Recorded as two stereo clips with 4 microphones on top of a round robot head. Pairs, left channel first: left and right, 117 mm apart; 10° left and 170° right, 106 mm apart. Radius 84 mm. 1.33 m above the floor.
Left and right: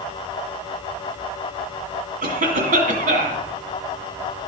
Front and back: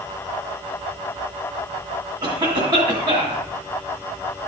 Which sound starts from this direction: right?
A cough, at 2.2 s.